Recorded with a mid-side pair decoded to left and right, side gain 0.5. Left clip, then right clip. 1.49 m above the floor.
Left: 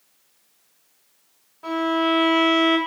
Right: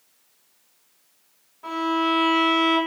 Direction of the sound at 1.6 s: 30° left.